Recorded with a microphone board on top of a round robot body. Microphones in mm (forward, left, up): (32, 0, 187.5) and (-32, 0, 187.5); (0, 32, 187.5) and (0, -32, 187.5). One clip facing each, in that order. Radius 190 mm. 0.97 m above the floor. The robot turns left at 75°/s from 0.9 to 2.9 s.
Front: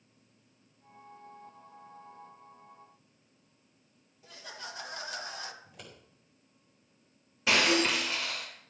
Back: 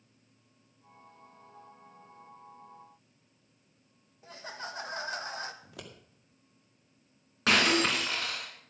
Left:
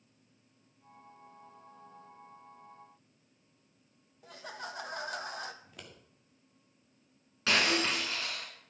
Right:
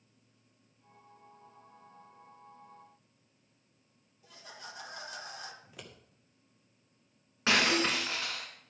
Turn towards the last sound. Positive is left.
turn(degrees=-155)